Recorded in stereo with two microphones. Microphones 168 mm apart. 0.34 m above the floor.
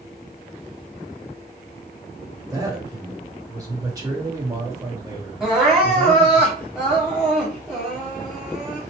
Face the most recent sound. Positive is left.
turn(degrees=-5)  # may be behind; listen again after turning